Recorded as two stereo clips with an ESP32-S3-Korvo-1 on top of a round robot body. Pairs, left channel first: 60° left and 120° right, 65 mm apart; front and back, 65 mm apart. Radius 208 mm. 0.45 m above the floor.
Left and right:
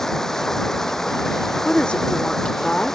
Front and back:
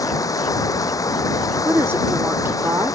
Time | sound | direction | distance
0.0 | running water | 25° right | ?
1.6 | a woman speaking | 135° left | ?